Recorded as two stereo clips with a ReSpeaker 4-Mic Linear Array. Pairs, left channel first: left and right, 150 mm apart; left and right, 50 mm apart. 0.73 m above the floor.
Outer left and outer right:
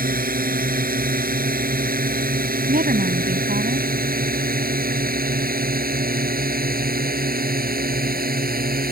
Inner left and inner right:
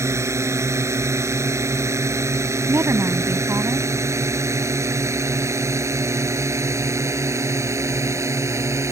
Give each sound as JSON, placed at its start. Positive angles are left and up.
{"t": 0.0, "sound": "a drone", "side_deg": -70}
{"t": 2.7, "sound": "a woman speaking", "side_deg": -80}